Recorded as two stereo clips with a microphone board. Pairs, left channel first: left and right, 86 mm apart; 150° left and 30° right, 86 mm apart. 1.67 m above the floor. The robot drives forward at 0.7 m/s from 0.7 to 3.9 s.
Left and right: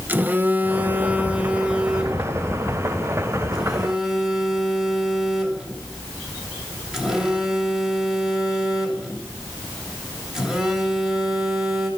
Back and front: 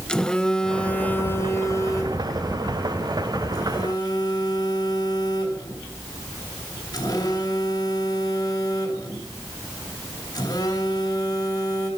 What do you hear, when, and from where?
0.1 s a phone buzzing: 135° right, 0.8 m; by 11.9 s 175° right, 2.5 m